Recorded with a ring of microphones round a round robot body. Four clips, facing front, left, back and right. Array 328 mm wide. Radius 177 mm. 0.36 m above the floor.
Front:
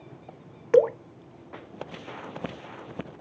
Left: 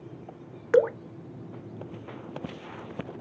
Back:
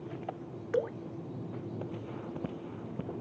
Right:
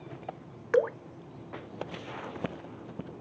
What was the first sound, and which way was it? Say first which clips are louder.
Dripping: left 4 dB, front 13 dB; 30° left.